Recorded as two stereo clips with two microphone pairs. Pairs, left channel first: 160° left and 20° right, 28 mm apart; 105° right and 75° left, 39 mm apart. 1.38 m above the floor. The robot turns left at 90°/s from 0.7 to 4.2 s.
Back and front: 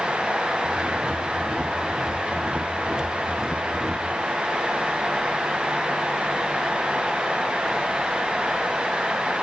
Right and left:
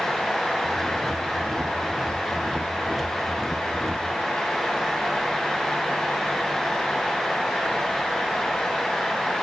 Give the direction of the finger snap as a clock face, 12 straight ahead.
I don't hear a finger snap.